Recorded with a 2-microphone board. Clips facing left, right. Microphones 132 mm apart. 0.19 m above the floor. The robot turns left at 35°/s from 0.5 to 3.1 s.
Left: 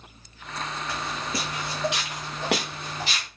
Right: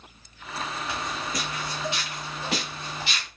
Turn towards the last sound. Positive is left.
turn(degrees=35)  # may be behind; listen again after turning